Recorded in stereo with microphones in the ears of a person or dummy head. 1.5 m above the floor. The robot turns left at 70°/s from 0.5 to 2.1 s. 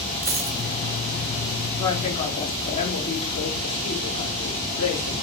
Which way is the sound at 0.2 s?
15° right (ahead or behind).